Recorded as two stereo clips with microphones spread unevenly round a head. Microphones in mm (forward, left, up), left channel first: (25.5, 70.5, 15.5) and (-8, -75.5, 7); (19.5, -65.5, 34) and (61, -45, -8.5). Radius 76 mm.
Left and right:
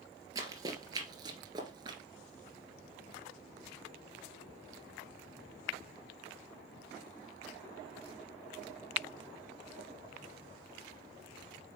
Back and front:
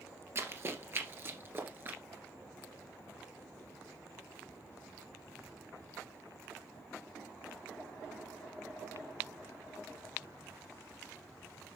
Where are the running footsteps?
45° right, 2 m; by 2.0 s 75° right, 1.7 m.